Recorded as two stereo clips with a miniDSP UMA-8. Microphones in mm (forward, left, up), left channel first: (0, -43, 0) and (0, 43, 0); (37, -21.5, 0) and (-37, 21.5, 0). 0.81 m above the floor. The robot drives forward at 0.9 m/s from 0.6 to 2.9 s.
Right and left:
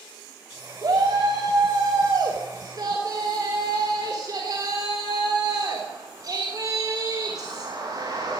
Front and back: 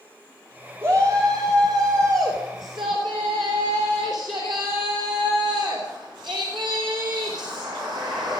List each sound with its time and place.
0.8 s a shout: 95° left, 2.5 m; by 8.4 s 135° left, 3 m